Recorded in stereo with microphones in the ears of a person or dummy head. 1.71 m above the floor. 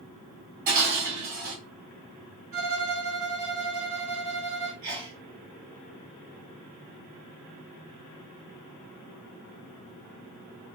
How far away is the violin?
About 1.6 m.